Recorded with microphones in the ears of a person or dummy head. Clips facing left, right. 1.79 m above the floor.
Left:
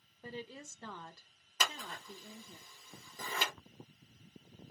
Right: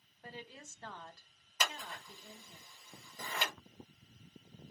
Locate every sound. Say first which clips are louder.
0.2 s a woman speaking: left 5 dB; 80° left, 0.6 m
1.6 s scissors: even; 65° left (ahead or behind), 1.2 m